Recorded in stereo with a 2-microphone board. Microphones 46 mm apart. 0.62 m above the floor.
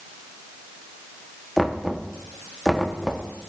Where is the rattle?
No rattle in this recording.